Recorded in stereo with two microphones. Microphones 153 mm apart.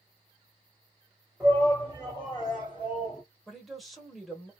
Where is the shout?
5° left (ahead or behind), 1.9 m; by 3.2 s 40° left (ahead or behind), 2.5 m.